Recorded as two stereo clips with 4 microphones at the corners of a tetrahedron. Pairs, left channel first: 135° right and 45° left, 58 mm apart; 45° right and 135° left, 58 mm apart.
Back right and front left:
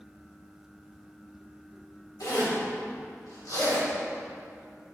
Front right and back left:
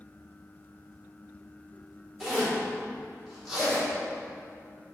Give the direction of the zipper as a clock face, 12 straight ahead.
5 o'clock.